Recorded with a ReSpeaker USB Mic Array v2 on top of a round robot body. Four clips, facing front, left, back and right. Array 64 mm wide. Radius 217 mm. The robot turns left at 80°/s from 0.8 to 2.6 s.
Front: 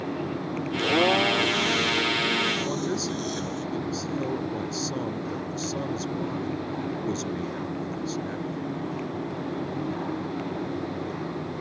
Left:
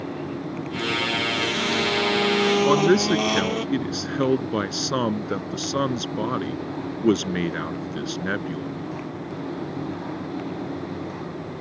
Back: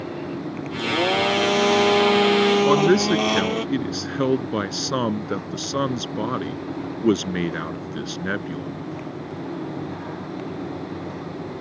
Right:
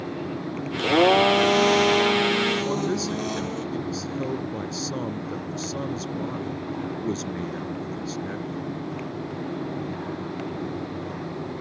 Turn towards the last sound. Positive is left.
turn(degrees=135)